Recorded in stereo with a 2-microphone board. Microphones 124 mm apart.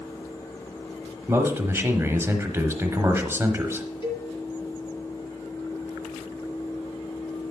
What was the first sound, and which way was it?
A man speaking, 20° right (ahead or behind).